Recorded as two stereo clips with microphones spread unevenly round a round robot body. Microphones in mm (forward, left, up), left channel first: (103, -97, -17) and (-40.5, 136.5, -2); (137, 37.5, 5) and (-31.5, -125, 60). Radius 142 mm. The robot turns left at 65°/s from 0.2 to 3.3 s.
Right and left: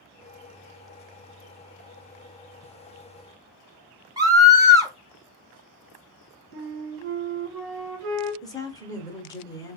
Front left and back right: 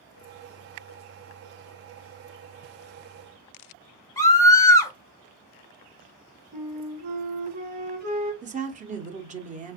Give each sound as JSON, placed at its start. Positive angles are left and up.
{"t": 4.2, "sound": "a scream", "azimuth_deg": 55, "distance_m": 0.9}
{"t": 6.5, "sound": "a flute", "azimuth_deg": 170, "distance_m": 2.5}
{"t": 8.4, "sound": "a woman speaking", "azimuth_deg": -95, "distance_m": 0.8}